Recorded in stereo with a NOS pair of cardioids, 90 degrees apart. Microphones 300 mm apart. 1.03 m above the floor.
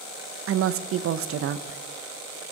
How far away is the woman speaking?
About 0.5 m.